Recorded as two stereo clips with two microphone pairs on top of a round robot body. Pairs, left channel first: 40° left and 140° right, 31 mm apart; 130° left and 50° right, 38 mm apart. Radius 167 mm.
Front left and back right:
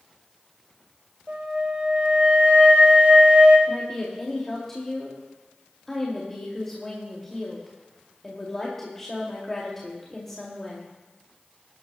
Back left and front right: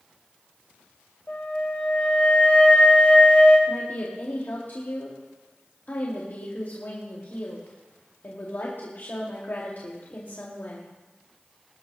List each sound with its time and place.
1.3 s a flute: straight behind, 3.5 m
3.7 s a woman speaking: 115° left, 2.5 m